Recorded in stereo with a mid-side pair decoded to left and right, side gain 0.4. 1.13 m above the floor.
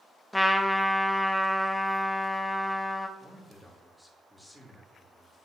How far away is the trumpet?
About 0.9 m.